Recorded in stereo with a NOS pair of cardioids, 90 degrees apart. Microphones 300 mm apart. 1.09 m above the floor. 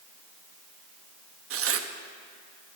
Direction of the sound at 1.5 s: 50° right.